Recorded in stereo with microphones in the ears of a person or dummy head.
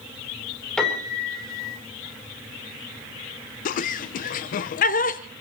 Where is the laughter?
40° left (ahead or behind), 1.0 m.